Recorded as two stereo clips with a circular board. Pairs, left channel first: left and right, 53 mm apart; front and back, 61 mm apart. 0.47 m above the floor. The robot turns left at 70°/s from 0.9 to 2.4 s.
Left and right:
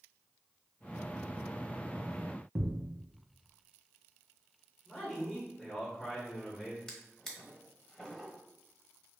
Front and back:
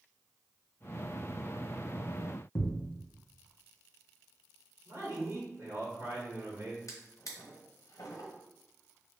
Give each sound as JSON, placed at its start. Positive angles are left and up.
{"t": 2.5, "sound": "a thud", "azimuth_deg": -35, "distance_m": 0.8}
{"t": 4.8, "sound": "a man speaking", "azimuth_deg": 175, "distance_m": 1.9}
{"t": 6.9, "sound": "a drawer", "azimuth_deg": 10, "distance_m": 1.3}